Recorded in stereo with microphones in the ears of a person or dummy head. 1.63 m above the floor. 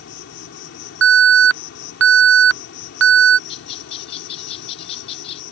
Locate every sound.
0.0 s an insect: 80° left
1.0 s an alarm: 75° right (ahead or behind)
3.5 s a bird: 30° left (ahead or behind)